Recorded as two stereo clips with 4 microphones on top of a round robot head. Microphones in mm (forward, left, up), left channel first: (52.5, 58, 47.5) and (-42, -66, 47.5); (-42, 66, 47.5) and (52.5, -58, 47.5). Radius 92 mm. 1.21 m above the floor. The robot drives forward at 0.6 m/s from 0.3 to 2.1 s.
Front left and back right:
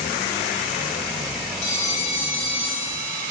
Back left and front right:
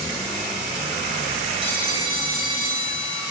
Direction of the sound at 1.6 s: 5° left.